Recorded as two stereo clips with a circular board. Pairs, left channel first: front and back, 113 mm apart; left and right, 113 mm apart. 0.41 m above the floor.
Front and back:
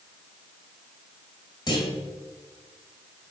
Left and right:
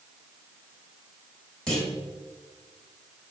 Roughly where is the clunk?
Ahead.